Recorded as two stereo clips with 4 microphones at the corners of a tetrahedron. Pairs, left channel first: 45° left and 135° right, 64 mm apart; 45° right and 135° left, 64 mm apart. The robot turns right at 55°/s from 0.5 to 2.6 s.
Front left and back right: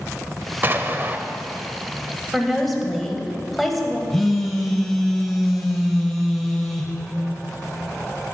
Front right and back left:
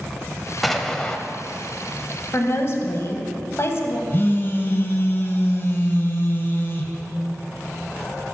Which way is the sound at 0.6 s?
140° right.